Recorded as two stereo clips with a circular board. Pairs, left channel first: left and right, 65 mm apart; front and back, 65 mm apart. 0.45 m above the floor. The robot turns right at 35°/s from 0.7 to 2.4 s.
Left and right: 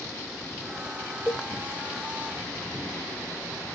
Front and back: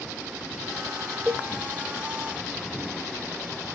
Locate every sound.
1.3 s a cowbell: 115° left, 0.6 m; by 1.5 s 120° left, 0.6 m